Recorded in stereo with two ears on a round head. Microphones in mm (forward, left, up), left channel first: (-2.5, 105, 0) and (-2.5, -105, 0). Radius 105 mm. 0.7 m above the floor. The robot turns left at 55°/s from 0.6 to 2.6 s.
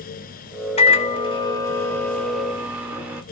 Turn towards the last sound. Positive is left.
turn(degrees=-5)  # may be behind; listen again after turning